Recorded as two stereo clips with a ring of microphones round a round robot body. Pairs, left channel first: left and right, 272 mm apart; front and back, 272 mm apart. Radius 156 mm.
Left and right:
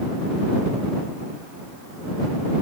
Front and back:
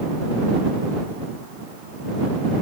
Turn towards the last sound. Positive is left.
No sound to turn to.